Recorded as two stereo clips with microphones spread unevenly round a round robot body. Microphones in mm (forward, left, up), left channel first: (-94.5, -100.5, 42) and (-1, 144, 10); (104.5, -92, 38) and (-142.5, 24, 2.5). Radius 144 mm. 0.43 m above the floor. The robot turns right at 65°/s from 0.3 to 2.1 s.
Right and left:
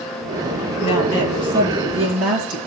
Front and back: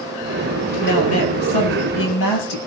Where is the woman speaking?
80° right, 8.5 m; by 2.6 s 5° left, 8.5 m.